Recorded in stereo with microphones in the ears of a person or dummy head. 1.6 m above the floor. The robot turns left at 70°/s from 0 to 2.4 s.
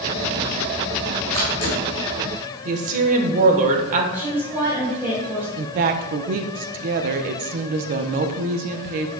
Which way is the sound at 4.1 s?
15° right (ahead or behind).